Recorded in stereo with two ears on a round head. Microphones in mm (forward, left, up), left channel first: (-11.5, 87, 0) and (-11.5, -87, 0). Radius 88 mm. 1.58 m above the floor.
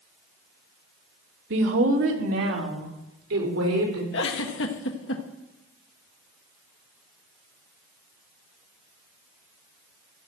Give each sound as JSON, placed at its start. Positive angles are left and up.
{"t": 1.5, "sound": "a woman speaking", "side_deg": -75, "distance_m": 2.0}
{"t": 4.1, "sound": "a giggle", "side_deg": 65, "distance_m": 1.7}